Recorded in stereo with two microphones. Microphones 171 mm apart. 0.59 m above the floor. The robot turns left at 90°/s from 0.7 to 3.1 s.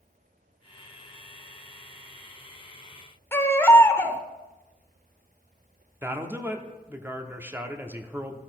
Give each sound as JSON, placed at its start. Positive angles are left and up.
{"t": 3.3, "sound": "a baby crying", "side_deg": 15, "distance_m": 0.8}
{"t": 6.0, "sound": "a man speaking", "side_deg": -15, "distance_m": 0.8}